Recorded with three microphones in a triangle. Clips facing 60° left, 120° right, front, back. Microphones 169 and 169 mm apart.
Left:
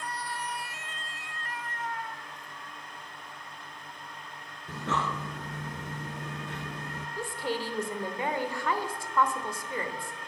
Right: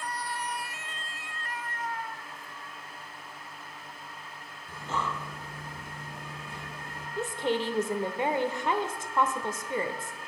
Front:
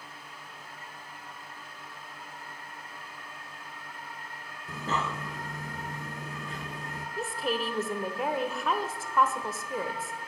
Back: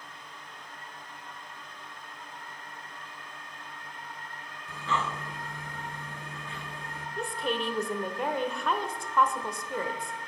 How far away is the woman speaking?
About 0.9 m.